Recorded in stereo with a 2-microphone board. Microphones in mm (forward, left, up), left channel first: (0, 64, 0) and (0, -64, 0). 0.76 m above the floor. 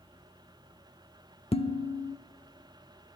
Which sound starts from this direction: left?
Dishes clattering, at 1.5 s.